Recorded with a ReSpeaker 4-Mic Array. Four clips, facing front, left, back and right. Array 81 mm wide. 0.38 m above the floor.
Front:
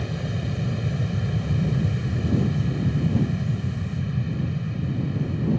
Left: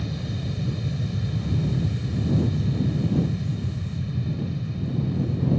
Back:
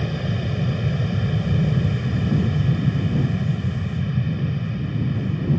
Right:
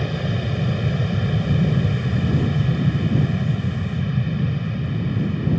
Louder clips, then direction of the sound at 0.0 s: Right 6 dB, back 4 dB; 115° right.